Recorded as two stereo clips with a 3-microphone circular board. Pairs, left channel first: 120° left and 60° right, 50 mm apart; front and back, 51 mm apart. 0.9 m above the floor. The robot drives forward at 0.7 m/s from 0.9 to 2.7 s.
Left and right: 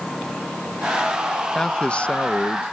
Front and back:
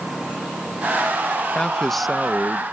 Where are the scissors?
I don't hear scissors.